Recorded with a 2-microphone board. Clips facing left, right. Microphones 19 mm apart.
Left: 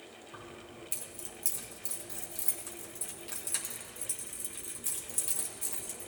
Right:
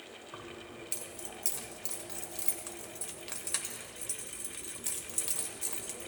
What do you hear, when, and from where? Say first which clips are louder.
0.3 s keys jangling: right 2 dB; 25° right (ahead or behind), 1.5 m